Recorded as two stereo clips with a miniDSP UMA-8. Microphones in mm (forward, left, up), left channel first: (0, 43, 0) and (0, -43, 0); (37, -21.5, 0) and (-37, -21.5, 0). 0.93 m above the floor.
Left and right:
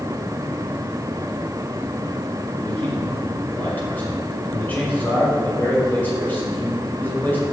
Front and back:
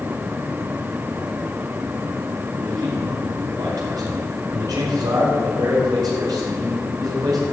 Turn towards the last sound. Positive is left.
turn(degrees=160)